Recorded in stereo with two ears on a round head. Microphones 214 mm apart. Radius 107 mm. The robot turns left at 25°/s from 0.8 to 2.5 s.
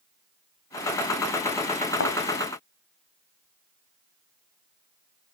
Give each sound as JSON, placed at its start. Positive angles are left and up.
{"t": 2.0, "sound": "a thud", "side_deg": 55, "distance_m": 1.3}